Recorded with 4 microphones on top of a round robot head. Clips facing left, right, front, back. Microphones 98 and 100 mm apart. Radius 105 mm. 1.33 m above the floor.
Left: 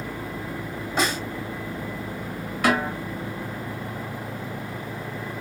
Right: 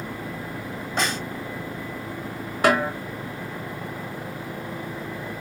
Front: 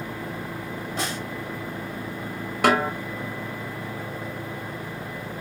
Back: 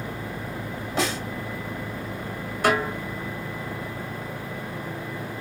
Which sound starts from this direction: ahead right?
A snare drum, at 2.6 s.